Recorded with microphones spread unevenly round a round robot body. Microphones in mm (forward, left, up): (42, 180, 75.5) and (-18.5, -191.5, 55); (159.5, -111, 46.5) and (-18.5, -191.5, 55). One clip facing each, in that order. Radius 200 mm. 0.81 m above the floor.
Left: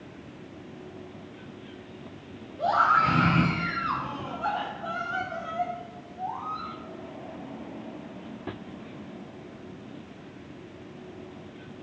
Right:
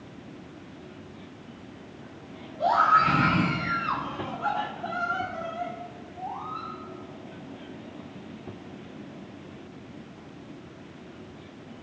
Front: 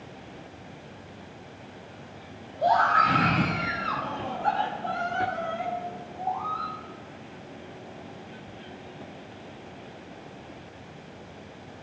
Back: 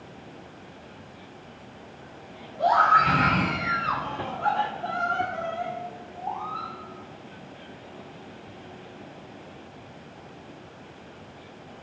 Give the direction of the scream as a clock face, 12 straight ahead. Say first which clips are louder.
Right 2 dB, even; 6 o'clock.